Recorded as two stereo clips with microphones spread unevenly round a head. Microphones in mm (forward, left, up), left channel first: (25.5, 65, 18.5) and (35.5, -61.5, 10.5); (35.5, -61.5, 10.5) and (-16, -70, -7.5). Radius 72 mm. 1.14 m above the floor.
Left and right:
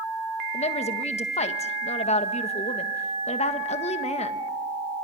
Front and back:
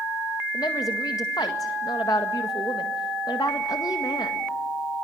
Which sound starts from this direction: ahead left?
A woman speaking, at 0.5 s.